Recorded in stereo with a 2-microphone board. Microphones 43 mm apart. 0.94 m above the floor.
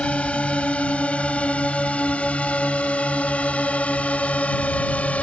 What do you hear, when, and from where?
0.0 s a drone: 25° left (ahead or behind); by 5.2 s 30° left (ahead or behind)